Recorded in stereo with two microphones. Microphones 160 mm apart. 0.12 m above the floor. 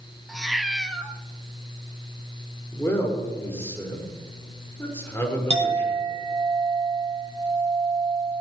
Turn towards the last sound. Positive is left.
turn(degrees=-40)  # may be behind; listen again after turning